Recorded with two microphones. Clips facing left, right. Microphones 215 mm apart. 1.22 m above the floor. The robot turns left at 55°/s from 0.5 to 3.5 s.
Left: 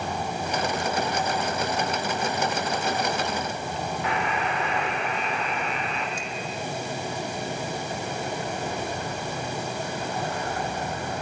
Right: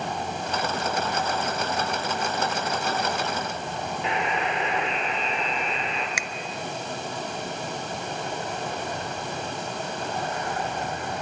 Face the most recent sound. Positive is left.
turn(degrees=-80)